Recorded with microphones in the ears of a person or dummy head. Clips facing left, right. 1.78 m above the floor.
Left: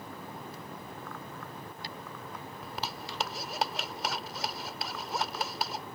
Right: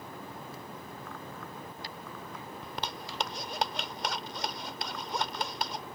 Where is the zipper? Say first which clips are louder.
Even; centre (ahead or behind).